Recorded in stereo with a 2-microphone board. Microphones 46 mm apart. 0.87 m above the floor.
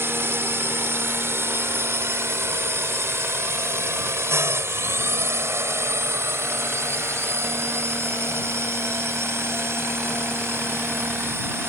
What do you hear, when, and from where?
0.0 s a drone: 60° right (ahead or behind); by 11.7 s 65° right (ahead or behind)